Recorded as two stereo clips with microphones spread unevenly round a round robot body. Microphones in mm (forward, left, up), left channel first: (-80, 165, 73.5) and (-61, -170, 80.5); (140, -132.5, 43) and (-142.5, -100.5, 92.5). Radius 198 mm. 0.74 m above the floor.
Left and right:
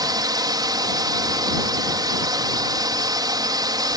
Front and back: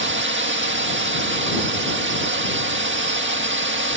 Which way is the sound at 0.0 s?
160° right.